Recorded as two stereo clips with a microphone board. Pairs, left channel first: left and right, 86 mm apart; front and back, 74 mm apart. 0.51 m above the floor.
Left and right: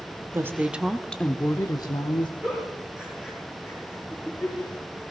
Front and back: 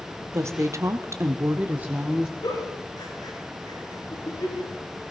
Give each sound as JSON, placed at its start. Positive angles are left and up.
{"t": 0.3, "sound": "a woman speaking", "azimuth_deg": -140, "distance_m": 1.0}
{"t": 2.4, "sound": "a giggle", "azimuth_deg": -10, "distance_m": 7.0}